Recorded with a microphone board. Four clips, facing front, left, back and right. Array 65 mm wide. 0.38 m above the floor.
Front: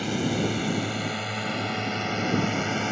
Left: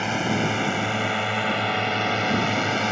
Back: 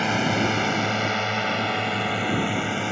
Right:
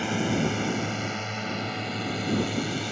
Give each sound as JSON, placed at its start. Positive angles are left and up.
{"t": 0.0, "sound": "a drone", "azimuth_deg": 150}